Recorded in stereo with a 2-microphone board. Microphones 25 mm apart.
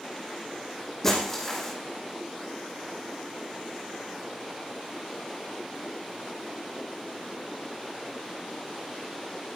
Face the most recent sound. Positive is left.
turn(degrees=15)  # may be behind; listen again after turning